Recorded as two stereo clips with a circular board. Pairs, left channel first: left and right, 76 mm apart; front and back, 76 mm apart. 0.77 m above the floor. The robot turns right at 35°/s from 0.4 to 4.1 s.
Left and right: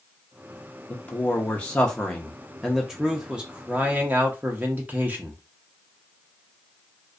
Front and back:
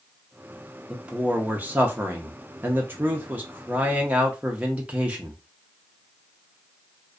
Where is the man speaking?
120° left, 0.5 m; by 5.4 s 130° right, 0.5 m.